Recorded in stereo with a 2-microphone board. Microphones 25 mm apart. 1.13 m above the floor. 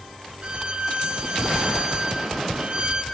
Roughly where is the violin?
Right.